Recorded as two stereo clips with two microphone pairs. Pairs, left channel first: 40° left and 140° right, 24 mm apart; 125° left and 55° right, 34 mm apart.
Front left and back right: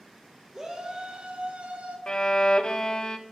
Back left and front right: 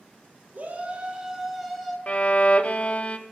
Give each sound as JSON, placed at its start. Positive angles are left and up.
{"t": 0.5, "sound": "a shout", "azimuth_deg": -85, "distance_m": 1.9}
{"t": 2.1, "sound": "a violin", "azimuth_deg": 80, "distance_m": 0.7}